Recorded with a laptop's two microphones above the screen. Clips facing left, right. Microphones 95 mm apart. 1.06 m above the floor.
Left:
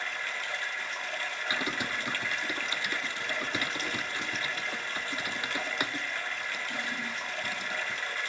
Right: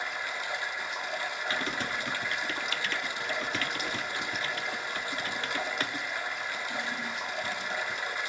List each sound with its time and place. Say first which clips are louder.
0.0 s running water: right 1 dB; 15° right (ahead or behind), 1.0 m
1.5 s typing on a keyboard: left 1 dB; 15° left (ahead or behind), 0.6 m